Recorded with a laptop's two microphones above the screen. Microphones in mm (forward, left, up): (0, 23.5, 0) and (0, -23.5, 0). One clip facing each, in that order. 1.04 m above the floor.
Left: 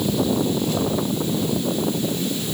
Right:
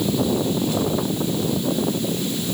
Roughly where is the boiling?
I don't hear boiling.